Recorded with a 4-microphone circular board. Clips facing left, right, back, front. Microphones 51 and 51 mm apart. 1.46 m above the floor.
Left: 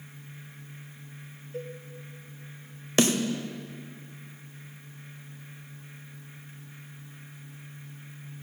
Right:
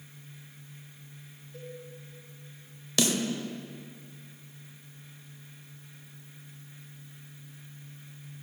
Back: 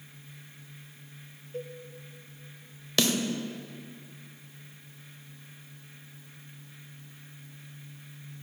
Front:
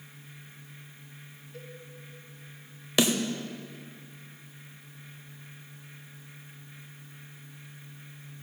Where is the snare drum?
70° left, 1.4 m.